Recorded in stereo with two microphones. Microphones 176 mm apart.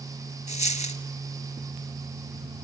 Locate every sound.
0.5 s a dropped coin: 40° left (ahead or behind), 1.0 m